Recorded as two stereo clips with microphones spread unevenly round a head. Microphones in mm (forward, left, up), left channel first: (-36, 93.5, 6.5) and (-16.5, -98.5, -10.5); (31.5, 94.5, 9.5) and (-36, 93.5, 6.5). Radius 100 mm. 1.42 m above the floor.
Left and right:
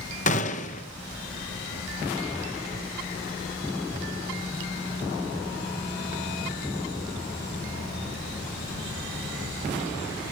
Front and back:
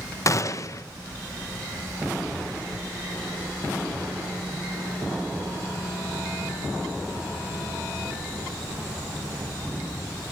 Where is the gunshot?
40° left, 1.0 m.